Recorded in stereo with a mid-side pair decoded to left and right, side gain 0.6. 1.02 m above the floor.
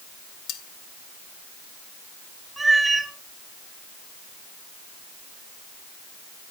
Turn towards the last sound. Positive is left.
turn(degrees=-20)